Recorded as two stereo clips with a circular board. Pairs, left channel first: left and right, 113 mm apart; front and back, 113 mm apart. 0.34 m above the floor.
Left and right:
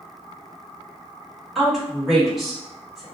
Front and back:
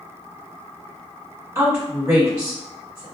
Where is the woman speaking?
Straight behind, 1.2 m.